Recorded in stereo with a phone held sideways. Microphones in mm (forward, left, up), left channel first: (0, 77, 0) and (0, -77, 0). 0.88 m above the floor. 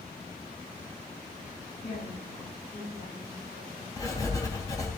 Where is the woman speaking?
80° left, 7.5 m; by 3.9 s 85° left, 8.5 m.